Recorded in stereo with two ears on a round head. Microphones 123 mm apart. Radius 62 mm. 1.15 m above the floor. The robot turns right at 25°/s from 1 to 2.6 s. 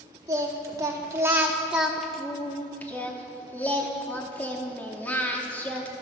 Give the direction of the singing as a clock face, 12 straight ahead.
1 o'clock.